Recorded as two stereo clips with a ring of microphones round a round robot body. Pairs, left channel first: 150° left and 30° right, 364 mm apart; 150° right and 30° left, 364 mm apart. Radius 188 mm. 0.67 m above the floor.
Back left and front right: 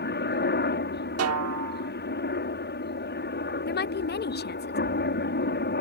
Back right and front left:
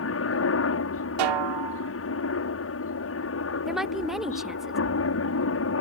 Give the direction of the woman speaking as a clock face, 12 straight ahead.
8 o'clock.